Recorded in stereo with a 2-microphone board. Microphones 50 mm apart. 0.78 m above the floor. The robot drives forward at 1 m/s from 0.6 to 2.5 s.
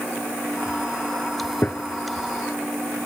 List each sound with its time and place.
1.6 s a gunshot: 45° left (ahead or behind); by 1.8 s 40° left (ahead or behind)